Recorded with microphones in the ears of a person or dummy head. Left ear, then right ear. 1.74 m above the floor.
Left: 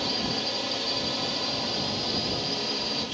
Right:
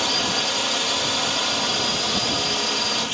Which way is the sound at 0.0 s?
50° right (ahead or behind).